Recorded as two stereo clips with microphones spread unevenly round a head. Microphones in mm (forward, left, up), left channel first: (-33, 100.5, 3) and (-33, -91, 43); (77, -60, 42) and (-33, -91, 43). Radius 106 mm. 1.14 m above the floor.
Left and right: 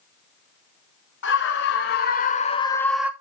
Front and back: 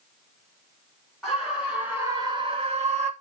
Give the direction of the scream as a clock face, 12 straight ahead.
8 o'clock.